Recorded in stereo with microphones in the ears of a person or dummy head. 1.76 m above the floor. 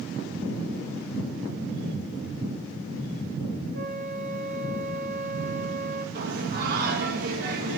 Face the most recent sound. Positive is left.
turn(degrees=-50)  # may be behind; listen again after turning